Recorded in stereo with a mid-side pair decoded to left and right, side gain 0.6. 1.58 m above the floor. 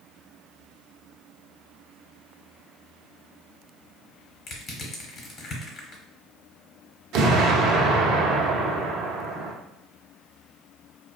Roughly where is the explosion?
Ahead right.